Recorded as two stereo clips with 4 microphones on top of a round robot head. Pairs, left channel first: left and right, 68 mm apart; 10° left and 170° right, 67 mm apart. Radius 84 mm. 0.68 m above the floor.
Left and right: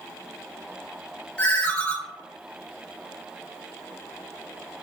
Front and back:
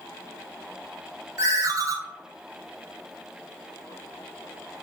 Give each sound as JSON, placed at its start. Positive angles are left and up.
{"t": 1.4, "sound": "a ringtone", "azimuth_deg": 160, "distance_m": 0.7}